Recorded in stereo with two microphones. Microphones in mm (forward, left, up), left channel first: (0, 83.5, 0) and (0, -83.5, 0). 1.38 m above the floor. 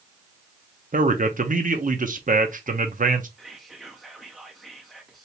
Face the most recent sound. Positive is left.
turn(degrees=0)  # may be behind; listen again after turning